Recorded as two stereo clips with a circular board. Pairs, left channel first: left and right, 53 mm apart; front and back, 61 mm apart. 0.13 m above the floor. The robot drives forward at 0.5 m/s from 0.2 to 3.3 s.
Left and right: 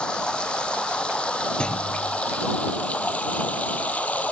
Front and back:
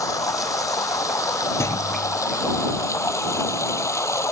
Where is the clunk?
20° left; by 2.2 s 25° left.